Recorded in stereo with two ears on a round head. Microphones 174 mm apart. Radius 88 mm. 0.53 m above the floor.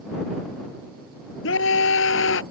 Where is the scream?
75° left (ahead or behind).